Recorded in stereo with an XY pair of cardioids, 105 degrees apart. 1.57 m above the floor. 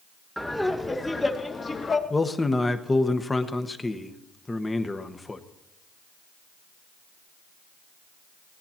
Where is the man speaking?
20° left, 1.1 m.